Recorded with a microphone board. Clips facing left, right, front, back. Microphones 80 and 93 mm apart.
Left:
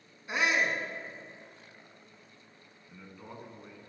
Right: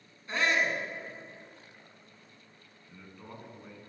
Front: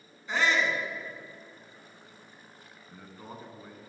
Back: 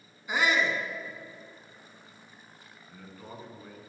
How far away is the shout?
About 1.0 m.